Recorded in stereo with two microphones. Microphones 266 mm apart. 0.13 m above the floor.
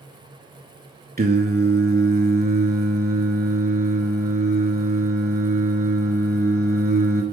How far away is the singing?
About 0.6 m.